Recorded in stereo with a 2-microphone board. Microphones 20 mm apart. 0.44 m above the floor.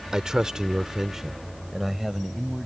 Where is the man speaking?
30° right (ahead or behind); by 2.7 s 5° right (ahead or behind).